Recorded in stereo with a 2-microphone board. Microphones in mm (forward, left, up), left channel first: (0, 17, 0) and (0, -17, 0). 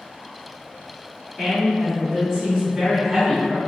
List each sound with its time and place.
1.4 s a woman speaking: 10° right (ahead or behind), 1.5 m; by 3.6 s 20° right (ahead or behind), 1.5 m